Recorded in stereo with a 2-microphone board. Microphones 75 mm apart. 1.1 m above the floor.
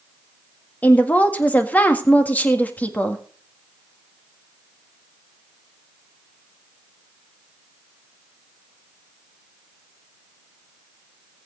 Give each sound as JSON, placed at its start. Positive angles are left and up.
{"t": 0.8, "sound": "a woman speaking", "side_deg": 20, "distance_m": 1.8}